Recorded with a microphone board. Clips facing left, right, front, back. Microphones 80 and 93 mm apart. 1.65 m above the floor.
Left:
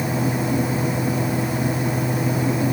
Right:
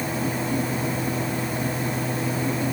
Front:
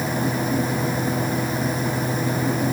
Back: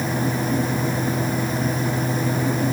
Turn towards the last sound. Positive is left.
No sound to turn to.